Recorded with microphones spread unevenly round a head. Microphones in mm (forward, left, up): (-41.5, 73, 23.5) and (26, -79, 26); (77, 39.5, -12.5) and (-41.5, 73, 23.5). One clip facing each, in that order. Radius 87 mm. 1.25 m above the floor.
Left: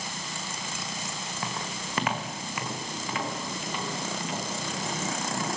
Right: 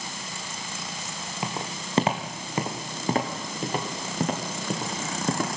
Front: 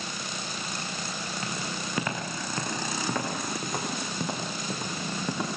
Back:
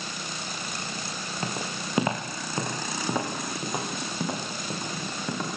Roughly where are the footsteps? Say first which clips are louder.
Right 4 dB, back 4 dB; behind right.